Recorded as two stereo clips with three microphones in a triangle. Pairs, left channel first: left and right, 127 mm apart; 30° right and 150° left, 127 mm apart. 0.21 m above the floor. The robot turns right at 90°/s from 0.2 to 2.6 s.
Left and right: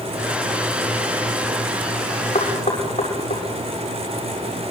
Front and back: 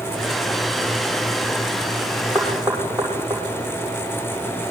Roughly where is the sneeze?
I don't hear a sneeze.